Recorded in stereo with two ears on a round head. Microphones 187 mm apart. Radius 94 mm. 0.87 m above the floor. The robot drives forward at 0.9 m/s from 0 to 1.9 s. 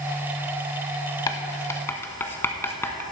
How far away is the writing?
About 0.8 m.